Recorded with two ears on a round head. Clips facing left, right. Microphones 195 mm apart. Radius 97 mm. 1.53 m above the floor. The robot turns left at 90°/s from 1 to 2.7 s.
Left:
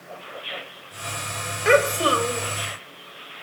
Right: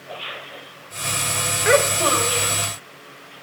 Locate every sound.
1.6 s a child speaking: straight behind, 3 m; by 2.5 s 105° left, 3 m